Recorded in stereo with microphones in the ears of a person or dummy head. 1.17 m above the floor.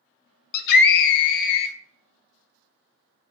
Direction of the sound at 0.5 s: 50° left (ahead or behind).